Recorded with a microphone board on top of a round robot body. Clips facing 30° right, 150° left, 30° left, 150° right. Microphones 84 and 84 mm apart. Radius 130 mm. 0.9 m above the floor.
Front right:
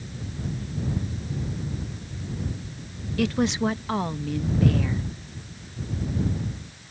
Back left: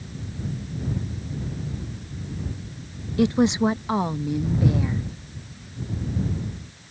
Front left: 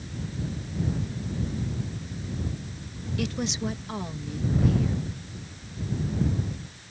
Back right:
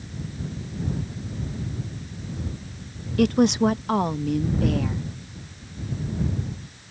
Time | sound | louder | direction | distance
3.2 | a woman speaking | back left 4 dB, back right 12 dB | 145° right | ?